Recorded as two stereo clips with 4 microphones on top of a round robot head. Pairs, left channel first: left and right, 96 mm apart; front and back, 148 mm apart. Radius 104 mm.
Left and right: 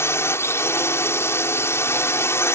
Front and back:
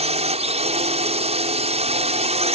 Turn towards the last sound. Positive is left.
turn(degrees=145)